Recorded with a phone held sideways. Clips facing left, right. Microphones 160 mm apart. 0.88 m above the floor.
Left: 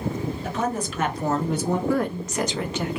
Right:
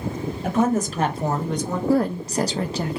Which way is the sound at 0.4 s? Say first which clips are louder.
Right 9 dB; 55° right (ahead or behind).